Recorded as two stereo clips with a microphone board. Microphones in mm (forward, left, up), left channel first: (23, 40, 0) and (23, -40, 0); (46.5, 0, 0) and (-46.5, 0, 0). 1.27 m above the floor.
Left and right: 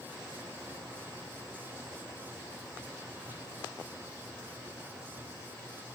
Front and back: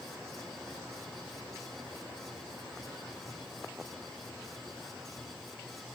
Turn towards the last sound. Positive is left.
No sound to turn to.